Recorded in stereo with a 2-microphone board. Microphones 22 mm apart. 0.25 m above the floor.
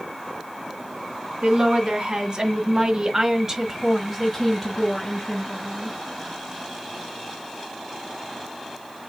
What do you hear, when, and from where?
1.4 s a woman speaking: 45° right (ahead or behind), 2.5 m; by 6.0 s 30° left (ahead or behind), 2.5 m